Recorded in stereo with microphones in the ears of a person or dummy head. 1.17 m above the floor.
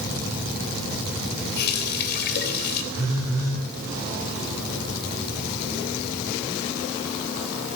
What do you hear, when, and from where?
1.6 s a running tap: 60° left (ahead or behind), 3 m
2.9 s a phone buzzing: 15° right (ahead or behind), 9.5 m